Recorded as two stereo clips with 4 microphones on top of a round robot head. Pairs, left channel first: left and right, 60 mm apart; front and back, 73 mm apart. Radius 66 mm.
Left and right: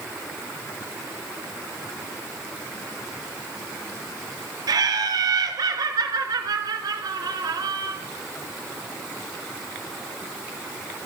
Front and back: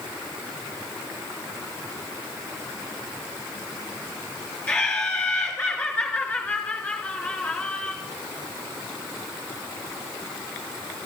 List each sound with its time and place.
4.7 s laughter: 80° right, 2.5 m